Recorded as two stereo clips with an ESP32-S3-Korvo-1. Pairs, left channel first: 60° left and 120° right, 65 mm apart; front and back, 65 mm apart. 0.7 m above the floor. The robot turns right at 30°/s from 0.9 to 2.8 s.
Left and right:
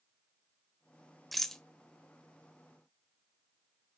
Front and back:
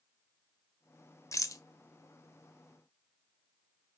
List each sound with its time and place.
1.3 s a rattle: 30° right, 0.7 m; by 1.6 s 20° right, 0.7 m